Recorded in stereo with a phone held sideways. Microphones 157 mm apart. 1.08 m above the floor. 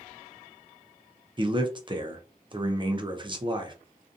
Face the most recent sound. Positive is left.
turn(degrees=-30)  # may be behind; listen again after turning